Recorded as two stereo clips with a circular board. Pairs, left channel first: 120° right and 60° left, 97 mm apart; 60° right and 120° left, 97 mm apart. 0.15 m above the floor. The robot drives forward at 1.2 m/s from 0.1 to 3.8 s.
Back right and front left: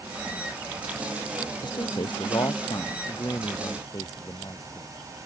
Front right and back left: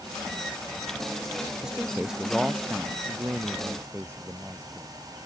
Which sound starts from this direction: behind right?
A man speaking, at 1.6 s.